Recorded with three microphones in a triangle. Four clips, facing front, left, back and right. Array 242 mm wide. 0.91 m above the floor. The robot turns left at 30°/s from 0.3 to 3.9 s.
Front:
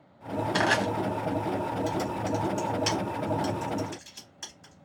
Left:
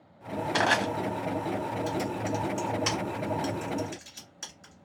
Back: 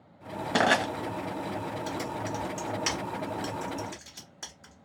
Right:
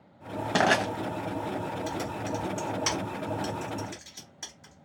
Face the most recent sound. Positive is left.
turn(degrees=-170)